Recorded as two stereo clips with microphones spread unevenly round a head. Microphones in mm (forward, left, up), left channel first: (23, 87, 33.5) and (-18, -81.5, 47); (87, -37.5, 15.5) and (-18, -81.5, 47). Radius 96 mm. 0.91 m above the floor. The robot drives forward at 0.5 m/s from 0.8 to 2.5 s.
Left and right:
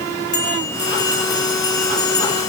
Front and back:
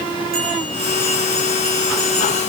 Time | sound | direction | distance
0.3 | a bell | 140° left | 6.5 m